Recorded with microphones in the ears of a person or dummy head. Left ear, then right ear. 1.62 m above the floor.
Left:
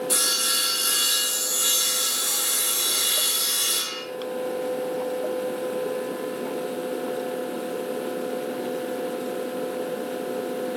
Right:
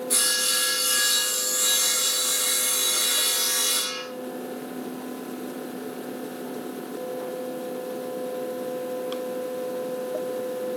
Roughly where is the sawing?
Left.